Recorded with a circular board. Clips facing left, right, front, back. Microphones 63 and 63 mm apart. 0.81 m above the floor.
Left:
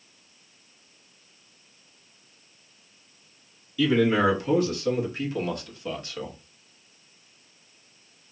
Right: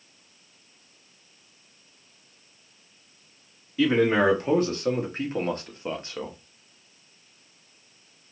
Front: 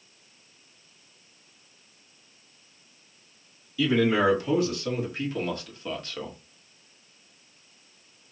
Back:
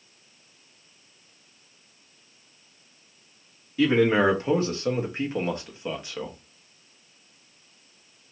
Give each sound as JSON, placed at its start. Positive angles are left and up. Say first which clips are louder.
{"t": 3.8, "sound": "a man speaking", "louder": "right 1 dB, back 2 dB", "azimuth_deg": -140, "distance_m": 2.0}